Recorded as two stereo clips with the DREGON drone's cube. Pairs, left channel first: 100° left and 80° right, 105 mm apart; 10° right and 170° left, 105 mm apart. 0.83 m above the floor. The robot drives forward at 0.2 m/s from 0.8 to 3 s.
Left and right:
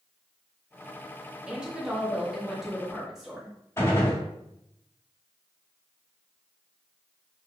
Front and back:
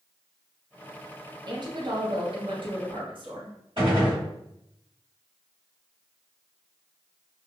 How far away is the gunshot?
About 1.9 m.